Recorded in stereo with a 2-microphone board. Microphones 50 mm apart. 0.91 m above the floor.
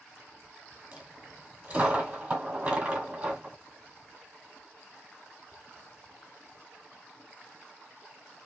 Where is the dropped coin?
30° right (ahead or behind), 1.4 m.